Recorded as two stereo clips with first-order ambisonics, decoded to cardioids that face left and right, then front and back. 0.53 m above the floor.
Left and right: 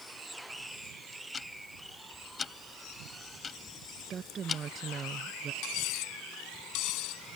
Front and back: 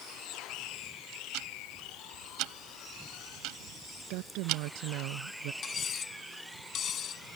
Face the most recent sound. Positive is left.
turn(degrees=60)